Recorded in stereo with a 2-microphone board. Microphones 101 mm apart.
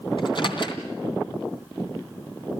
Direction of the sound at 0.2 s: 55° left (ahead or behind).